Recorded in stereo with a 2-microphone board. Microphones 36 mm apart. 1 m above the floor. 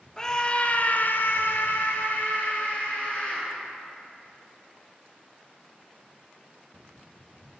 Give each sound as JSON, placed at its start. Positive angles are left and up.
{"t": 0.2, "sound": "a scream", "side_deg": 15, "distance_m": 0.8}